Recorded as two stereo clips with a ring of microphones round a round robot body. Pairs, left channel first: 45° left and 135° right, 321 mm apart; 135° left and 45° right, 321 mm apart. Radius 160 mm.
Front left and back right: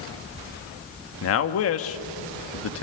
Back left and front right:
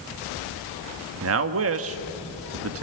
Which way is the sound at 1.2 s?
Straight ahead.